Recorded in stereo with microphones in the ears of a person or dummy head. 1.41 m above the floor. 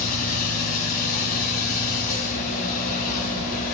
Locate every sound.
0.0 s a machine running: 50° left (ahead or behind), 10 m